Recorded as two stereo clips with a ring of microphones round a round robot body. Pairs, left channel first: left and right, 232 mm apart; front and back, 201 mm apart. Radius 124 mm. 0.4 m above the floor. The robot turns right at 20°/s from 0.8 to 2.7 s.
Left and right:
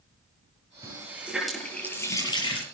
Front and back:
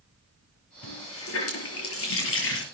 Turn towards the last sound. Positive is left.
turn(degrees=25)